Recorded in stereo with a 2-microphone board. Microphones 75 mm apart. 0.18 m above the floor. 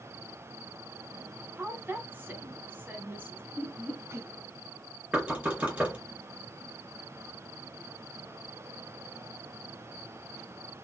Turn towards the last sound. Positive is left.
turn(degrees=-20)  # may be behind; listen again after turning